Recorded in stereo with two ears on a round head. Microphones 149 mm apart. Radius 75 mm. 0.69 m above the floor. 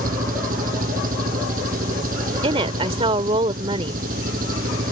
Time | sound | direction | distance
0.0 | an engine running | 50° right (ahead or behind) | ?
2.4 | a woman speaking | 35° right (ahead or behind) | ?